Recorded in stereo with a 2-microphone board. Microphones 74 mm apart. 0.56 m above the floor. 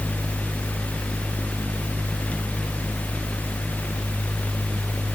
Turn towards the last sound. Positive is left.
No sound to turn to.